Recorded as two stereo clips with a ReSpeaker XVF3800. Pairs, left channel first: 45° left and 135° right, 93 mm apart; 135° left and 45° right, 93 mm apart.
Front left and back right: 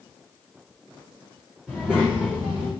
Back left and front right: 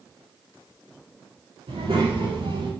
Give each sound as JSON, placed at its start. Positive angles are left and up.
{"t": 1.7, "sound": "a child speaking", "azimuth_deg": -35, "distance_m": 3.5}